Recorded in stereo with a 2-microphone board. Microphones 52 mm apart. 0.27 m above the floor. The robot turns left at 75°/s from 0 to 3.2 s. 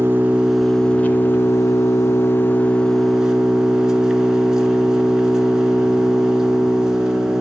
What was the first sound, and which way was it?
An engine running, 135° right.